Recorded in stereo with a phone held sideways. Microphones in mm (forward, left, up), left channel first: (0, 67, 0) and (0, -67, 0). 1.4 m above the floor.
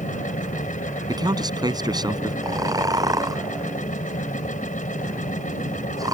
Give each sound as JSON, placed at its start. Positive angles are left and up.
{"t": 0.0, "sound": "a machine running", "side_deg": 80}
{"t": 1.1, "sound": "a man speaking", "side_deg": -30}
{"t": 2.4, "sound": "snoring", "side_deg": -25}